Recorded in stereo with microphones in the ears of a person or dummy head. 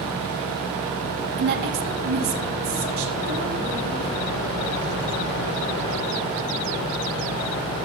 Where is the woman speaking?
45° right (ahead or behind), 0.8 m.